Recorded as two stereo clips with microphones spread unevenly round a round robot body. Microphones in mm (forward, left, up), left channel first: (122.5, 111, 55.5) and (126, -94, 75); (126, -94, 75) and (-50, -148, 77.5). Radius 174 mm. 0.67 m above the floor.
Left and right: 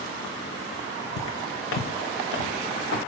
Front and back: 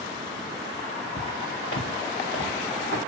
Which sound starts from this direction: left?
Footsteps, at 1.2 s.